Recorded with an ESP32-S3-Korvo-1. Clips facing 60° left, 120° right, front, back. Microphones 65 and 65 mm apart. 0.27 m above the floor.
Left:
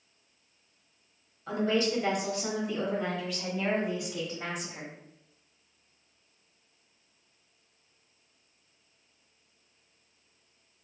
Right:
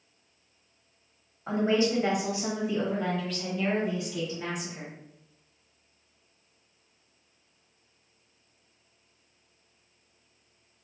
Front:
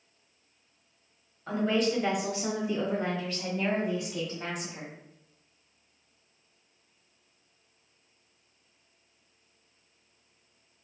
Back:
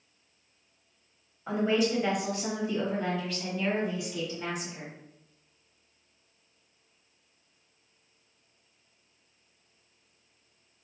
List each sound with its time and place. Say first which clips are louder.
1.5 s a woman speaking: right 3 dB, back 1 dB; 115° right, 1.2 m; by 4.9 s 15° left, 1.6 m